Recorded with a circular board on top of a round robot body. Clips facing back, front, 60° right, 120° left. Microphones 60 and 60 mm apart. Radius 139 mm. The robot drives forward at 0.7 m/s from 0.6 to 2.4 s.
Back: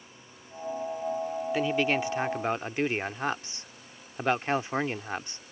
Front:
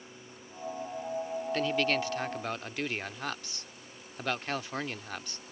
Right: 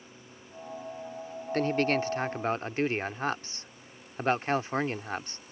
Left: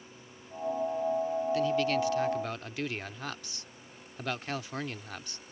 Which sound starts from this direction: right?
A man speaking, at 1.5 s.